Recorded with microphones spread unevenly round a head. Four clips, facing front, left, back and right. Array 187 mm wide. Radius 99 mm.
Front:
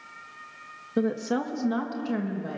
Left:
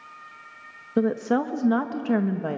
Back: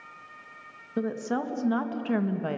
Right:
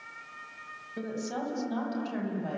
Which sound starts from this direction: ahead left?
A woman speaking, at 1.0 s.